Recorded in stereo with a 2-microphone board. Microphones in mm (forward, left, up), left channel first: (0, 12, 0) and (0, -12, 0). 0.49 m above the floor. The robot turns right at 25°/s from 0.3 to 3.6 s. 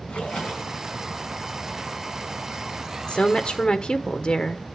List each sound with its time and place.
0.1 s a splash: 65° left (ahead or behind), 4.5 m; by 0.8 s 50° left (ahead or behind), 4.5 m
3.1 s a woman speaking: 45° left (ahead or behind), 1.2 m; by 4.7 s 35° left (ahead or behind), 1.2 m